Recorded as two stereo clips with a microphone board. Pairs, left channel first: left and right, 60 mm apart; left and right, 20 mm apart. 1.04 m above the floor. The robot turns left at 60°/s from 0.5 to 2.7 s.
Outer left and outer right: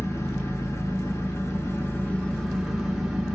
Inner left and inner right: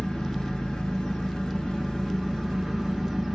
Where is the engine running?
125° left, 1.2 m; by 3.4 s 10° right, 1.2 m.